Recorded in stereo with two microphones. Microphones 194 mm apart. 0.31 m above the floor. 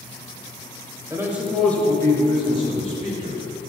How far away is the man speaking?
About 1.0 m.